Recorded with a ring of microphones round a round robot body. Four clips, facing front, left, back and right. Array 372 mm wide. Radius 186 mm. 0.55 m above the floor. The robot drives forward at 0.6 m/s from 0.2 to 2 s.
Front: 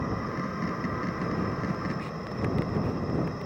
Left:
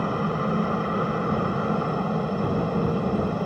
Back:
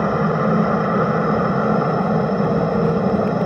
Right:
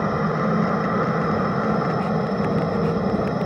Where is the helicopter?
170° right.